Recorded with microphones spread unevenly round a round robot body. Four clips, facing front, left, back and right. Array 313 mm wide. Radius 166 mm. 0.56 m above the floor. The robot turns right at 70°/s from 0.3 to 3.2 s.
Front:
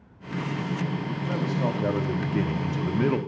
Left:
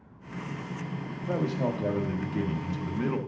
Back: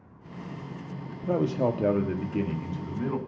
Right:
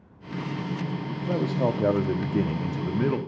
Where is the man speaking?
155° right, 1.4 m; by 3.2 s 20° right, 1.4 m.